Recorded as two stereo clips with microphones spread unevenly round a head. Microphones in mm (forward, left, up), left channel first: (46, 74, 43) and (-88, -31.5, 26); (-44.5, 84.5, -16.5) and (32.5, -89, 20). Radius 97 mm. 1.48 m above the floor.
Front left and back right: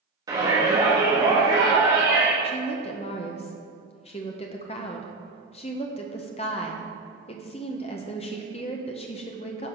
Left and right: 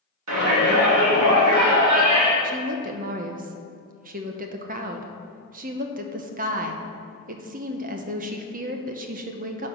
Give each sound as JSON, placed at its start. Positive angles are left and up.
{"t": 0.3, "sound": "a shout", "azimuth_deg": -70, "distance_m": 3.5}
{"t": 2.4, "sound": "a woman speaking", "azimuth_deg": -20, "distance_m": 0.9}